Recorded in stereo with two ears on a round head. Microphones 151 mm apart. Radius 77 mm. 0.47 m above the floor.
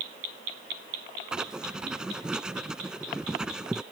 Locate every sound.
1.3 s writing: 5° right (ahead or behind)